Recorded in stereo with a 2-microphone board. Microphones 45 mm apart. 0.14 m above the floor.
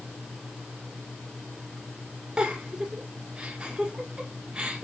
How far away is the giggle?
About 1.3 m.